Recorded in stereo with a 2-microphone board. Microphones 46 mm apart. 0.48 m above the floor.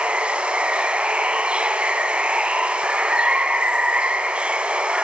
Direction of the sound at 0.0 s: 20° right (ahead or behind).